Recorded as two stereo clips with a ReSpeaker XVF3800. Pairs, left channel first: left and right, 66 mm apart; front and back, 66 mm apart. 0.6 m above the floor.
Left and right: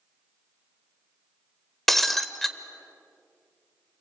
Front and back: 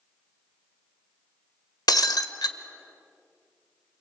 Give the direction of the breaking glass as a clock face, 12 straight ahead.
12 o'clock.